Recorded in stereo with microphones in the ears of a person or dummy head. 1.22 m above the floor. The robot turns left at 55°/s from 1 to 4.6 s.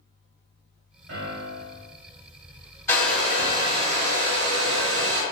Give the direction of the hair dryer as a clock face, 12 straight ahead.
12 o'clock.